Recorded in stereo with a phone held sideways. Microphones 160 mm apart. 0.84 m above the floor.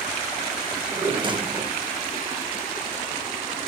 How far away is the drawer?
About 0.6 m.